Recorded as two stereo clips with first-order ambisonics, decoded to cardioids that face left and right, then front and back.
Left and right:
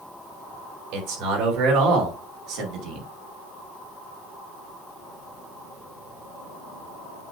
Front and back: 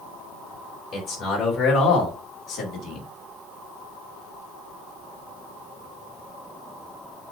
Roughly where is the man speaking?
Right.